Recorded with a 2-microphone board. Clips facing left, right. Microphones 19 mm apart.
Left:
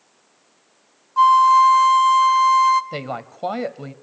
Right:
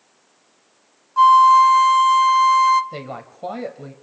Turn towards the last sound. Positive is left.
turn(degrees=30)  # may be behind; listen again after turning